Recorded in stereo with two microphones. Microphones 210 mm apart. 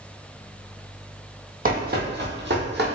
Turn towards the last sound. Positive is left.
turn(degrees=-55)  # may be behind; listen again after turning